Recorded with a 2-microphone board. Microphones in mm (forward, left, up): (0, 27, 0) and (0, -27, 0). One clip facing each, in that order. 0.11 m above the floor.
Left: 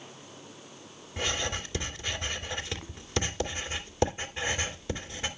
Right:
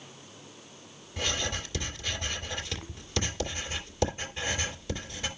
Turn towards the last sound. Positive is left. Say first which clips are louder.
# left 1 dB
turn(degrees=20)  # may be behind; listen again after turning